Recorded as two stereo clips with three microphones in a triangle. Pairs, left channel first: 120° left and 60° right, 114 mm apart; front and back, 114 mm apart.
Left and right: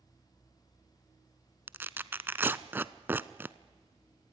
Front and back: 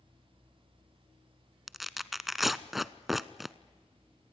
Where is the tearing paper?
95° right, 0.6 m.